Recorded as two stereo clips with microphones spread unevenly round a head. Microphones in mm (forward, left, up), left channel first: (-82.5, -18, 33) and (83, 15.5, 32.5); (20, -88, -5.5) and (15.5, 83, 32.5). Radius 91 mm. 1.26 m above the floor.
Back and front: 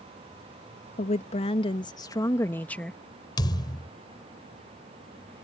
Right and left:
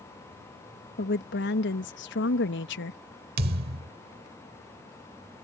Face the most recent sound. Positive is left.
turn(degrees=125)